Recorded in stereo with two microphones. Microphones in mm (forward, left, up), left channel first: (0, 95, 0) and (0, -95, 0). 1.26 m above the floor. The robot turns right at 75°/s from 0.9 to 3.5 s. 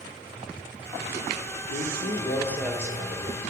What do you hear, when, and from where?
1.7 s a man speaking: 110° left, 1.3 m; by 3.4 s 125° right, 1.3 m